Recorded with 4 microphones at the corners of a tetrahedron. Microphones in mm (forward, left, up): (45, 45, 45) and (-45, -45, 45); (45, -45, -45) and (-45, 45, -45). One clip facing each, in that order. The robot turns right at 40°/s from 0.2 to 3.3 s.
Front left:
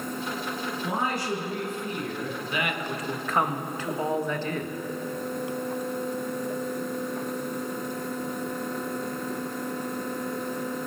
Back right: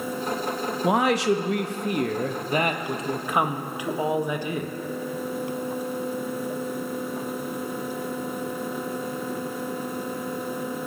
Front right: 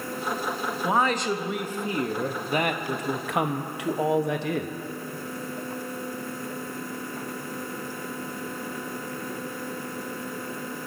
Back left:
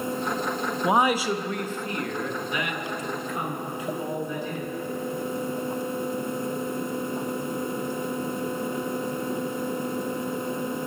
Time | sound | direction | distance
0.8 | a man speaking | 155° right | 0.9 m